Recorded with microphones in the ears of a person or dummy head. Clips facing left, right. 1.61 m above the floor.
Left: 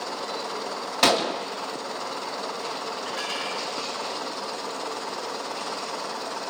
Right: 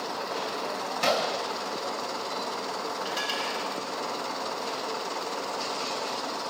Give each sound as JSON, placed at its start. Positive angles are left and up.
{"t": 1.0, "sound": "a gunshot", "side_deg": 65, "distance_m": 0.5}
{"t": 3.0, "sound": "dishes clattering", "side_deg": -60, "distance_m": 4.0}